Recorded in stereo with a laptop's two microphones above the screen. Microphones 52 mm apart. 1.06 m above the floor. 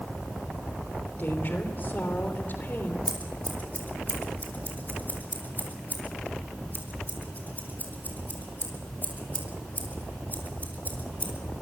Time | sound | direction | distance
1.2 | a woman speaking | 45° left (ahead or behind) | 3 m
3.1 | scissors | 35° left (ahead or behind) | 4 m